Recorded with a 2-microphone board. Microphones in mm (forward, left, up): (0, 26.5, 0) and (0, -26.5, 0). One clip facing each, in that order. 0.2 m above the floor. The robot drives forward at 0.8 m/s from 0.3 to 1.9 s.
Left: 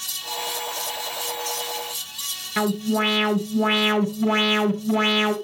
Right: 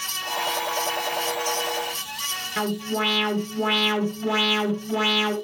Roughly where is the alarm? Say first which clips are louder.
Left 4 dB; left.